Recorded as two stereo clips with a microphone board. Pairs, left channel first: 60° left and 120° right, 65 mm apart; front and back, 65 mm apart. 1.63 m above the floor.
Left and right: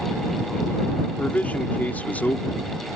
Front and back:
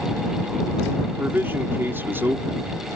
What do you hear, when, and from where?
1.1 s a man speaking: 125° left